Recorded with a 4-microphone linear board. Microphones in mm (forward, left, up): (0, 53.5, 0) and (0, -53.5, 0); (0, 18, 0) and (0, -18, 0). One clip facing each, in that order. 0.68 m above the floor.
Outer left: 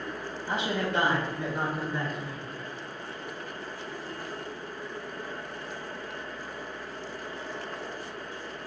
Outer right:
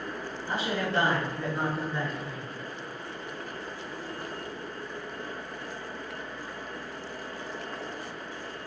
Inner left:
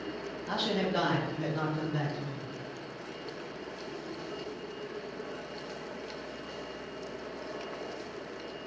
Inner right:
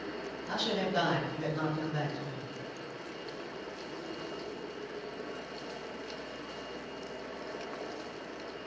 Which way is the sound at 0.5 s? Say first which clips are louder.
Outer left 1 dB, inner left 2 dB; 20° left (ahead or behind).